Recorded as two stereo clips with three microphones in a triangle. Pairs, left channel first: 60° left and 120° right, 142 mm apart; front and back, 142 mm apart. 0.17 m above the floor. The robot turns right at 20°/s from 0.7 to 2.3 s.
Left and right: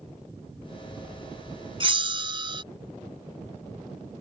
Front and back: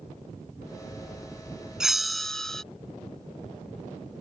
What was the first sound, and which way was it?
A bell, 95° right.